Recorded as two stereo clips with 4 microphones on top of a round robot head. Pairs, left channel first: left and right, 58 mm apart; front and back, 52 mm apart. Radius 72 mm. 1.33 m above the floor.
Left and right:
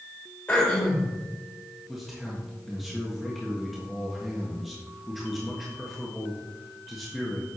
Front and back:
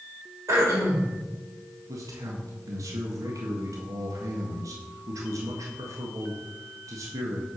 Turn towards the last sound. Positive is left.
turn(degrees=180)